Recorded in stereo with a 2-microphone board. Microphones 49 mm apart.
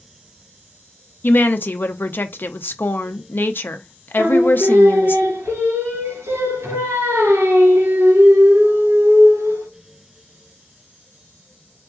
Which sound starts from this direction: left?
A woman speaking, at 1.2 s.